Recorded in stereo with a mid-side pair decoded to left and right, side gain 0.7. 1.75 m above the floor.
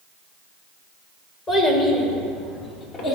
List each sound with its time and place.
1.5 s a child speaking: 35° left, 3 m; by 3.2 s 50° left, 2 m